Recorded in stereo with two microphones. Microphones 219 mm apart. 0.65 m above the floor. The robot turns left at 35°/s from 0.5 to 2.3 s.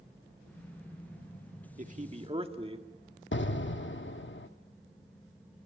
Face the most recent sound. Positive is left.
turn(degrees=60)  # may be behind; listen again after turning